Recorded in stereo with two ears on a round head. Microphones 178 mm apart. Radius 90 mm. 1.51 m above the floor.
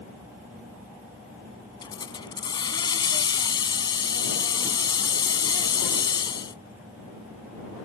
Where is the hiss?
20° left (ahead or behind).